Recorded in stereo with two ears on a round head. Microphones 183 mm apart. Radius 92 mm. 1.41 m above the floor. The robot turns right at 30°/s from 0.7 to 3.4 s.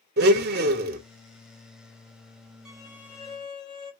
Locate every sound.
0.2 s a blender: 50° right (ahead or behind), 0.9 m; by 1.0 s 40° right (ahead or behind), 0.9 m
2.6 s a violin: 5° right (ahead or behind), 1.1 m; by 3.9 s 20° left (ahead or behind), 1.1 m